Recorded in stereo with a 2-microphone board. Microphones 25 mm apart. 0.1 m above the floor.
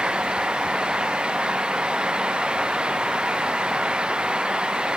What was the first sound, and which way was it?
Only background noise.